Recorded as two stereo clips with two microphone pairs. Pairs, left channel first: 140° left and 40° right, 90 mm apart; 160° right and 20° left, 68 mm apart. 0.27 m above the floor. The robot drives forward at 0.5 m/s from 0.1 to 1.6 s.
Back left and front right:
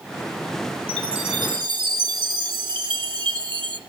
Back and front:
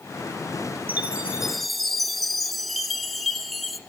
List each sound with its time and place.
0.9 s a chime: 40° right, 0.7 m; by 3.8 s 65° right, 0.5 m